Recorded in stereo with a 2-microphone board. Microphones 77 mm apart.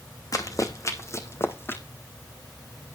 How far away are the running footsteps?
About 2.5 m.